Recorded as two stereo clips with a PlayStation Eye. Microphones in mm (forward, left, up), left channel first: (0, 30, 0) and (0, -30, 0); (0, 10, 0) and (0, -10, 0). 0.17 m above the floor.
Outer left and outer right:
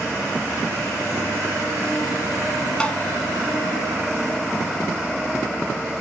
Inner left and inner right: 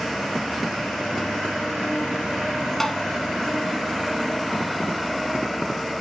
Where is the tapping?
15° left (ahead or behind), 1.4 m.